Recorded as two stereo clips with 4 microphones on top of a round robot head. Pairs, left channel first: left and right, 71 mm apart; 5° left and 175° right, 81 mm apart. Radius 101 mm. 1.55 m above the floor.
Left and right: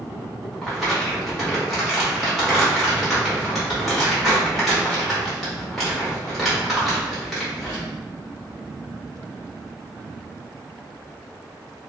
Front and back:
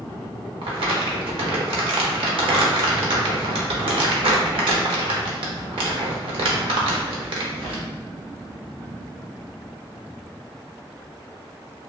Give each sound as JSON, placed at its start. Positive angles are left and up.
{"t": 0.6, "sound": "crumpling", "azimuth_deg": 180, "distance_m": 0.6}